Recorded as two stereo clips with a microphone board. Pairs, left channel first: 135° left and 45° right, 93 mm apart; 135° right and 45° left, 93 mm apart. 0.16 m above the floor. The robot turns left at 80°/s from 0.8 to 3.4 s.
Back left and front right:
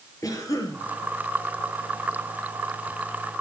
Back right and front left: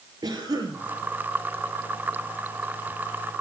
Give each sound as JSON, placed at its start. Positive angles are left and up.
{"t": 0.2, "sound": "a cough", "azimuth_deg": 85, "distance_m": 3.5}